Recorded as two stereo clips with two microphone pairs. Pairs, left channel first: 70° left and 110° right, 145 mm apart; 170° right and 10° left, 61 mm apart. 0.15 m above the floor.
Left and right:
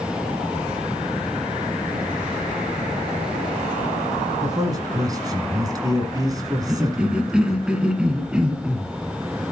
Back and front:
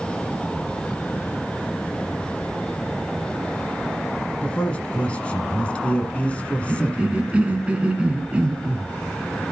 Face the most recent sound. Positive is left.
turn(degrees=-35)